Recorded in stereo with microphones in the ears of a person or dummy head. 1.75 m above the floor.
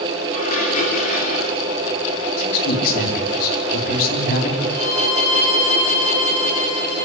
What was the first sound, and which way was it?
Dishes clattering, 40° left (ahead or behind).